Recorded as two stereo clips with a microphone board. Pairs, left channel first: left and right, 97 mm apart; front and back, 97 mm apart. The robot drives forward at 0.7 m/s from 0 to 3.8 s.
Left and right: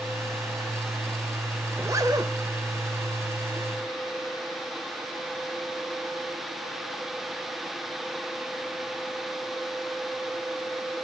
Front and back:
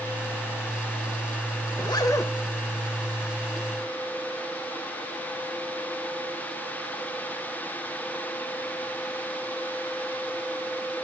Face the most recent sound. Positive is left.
turn(degrees=-150)